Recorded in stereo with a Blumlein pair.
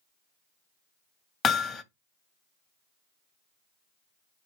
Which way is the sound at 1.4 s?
20° left.